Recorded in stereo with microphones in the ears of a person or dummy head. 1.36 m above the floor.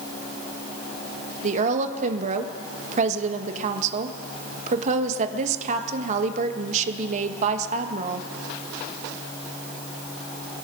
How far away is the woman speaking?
About 1.3 m.